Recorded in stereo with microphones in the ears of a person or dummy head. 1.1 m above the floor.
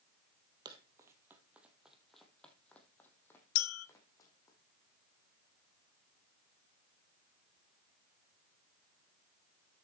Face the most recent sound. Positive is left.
turn(degrees=85)